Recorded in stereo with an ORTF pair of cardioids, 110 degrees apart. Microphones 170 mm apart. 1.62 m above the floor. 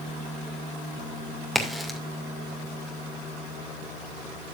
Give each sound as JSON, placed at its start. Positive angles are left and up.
{"t": 1.6, "sound": "a crack", "azimuth_deg": 0, "distance_m": 2.5}